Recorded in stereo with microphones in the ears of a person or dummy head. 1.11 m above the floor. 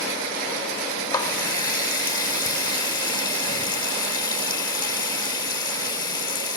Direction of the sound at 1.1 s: 25° left (ahead or behind).